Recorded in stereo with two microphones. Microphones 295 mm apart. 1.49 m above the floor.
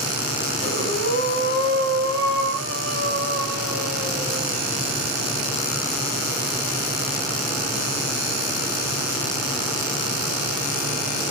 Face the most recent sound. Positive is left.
turn(degrees=-45)  # may be behind; listen again after turning